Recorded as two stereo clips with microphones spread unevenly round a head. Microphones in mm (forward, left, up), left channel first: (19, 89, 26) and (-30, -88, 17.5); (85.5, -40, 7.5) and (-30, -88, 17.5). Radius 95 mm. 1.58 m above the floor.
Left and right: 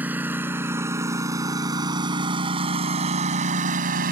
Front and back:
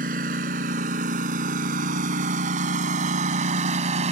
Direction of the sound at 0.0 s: 175° left.